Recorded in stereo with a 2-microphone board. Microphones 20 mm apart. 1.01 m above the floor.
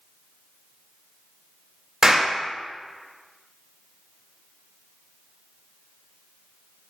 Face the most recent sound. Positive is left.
turn(degrees=-30)  # may be behind; listen again after turning